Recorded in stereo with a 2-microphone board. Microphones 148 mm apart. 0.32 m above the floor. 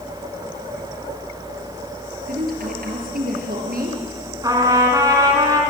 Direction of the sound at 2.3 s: 70° right (ahead or behind).